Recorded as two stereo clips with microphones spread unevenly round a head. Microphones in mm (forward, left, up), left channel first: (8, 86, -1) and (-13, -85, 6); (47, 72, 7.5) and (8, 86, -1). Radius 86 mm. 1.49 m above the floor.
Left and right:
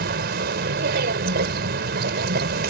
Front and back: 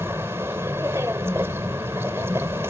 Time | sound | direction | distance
0.0 | a vehicle | 130° right | ?